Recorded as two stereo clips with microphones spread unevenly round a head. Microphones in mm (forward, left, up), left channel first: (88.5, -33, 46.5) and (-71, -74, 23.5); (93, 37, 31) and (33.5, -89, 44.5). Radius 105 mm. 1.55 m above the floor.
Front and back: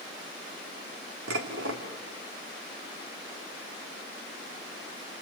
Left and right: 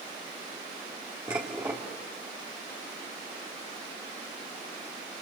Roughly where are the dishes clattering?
Behind.